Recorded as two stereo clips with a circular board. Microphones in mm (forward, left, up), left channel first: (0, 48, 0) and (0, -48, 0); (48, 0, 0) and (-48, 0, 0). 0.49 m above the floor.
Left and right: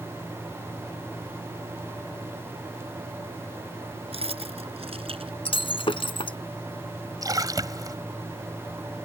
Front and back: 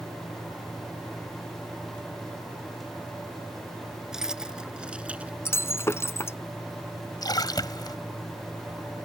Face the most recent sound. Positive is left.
turn(degrees=-40)